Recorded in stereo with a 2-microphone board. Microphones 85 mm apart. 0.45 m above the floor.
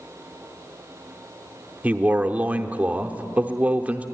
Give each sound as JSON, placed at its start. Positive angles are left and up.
{"t": 1.8, "sound": "a man speaking", "side_deg": -15, "distance_m": 0.7}